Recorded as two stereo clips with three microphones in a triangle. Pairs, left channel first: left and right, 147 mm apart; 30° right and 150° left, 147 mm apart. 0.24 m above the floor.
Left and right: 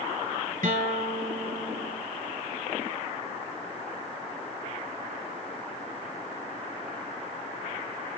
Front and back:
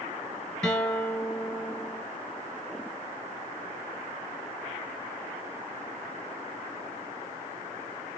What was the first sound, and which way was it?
A guitar, 115° right.